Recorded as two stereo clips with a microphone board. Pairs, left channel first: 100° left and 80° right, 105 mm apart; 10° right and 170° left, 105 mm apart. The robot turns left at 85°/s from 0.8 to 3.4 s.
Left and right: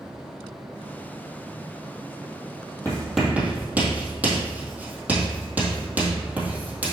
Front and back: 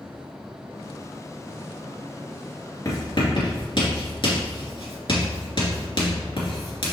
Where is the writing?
40° left, 2.5 m; by 6.9 s 10° right, 2.5 m.